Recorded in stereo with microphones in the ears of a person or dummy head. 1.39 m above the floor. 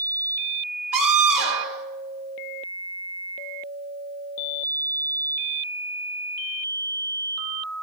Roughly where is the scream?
Right.